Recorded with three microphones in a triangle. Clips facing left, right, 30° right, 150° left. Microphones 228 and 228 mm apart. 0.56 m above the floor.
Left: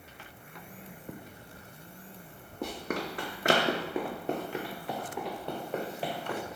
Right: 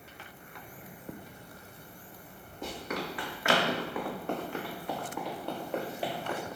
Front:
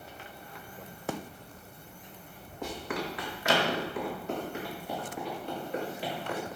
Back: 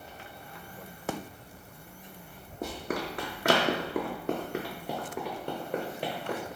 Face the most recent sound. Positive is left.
turn(degrees=-170)